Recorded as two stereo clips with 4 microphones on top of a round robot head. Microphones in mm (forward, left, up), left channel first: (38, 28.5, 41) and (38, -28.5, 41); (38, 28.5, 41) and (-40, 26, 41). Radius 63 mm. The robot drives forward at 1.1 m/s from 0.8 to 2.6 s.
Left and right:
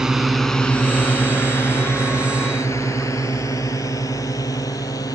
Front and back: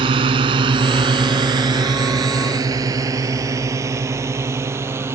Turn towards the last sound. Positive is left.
turn(degrees=125)